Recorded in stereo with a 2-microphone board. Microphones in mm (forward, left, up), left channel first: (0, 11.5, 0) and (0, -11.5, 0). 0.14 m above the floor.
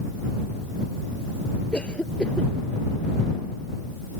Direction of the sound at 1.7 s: 55° left (ahead or behind).